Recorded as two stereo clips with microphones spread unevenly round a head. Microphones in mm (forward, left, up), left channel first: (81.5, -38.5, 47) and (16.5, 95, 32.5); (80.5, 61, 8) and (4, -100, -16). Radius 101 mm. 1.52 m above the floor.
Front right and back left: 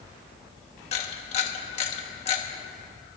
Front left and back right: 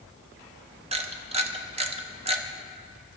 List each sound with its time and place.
0.9 s a camera shutter: 65° right, 1.1 m